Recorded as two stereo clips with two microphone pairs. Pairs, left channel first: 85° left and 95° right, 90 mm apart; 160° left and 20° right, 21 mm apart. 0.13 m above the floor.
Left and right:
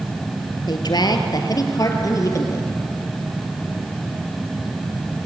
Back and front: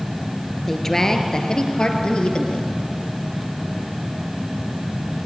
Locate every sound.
0.7 s a woman speaking: 90° left, 2.5 m; by 2.6 s 135° left, 4 m